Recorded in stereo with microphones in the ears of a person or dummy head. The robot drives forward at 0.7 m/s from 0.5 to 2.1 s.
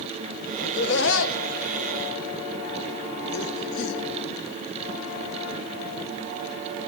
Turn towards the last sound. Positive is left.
turn(degrees=65)  # may be behind; listen again after turning